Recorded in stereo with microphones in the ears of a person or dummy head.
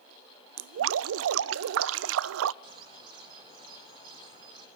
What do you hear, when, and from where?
0.6 s dripping: 75° right (ahead or behind), 0.6 m
2.6 s a bird: 30° right (ahead or behind), 2.5 m